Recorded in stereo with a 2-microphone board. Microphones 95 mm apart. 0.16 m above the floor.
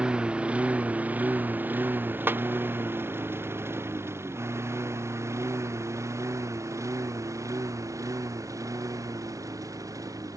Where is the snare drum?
20° right (ahead or behind).